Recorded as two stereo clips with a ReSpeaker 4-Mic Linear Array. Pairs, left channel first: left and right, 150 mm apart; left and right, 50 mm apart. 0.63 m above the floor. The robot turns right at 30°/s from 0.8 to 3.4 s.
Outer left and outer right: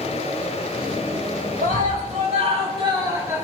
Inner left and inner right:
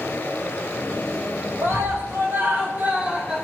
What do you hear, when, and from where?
1.6 s a scream: 70° right, 4.5 m; by 3.5 s 15° right, 4.5 m